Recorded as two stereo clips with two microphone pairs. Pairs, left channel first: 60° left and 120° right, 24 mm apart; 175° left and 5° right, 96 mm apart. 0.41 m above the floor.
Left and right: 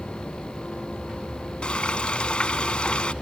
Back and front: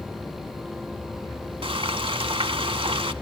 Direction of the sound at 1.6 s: 10° left.